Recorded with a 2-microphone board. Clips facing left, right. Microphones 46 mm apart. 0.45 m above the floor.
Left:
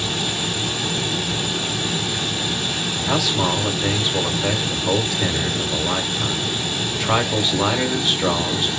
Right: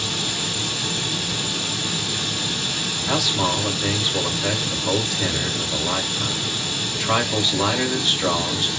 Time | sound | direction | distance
0.0 | running water | 25° left (ahead or behind) | 1.2 m
3.1 | a man speaking | 5° left (ahead or behind) | 1.0 m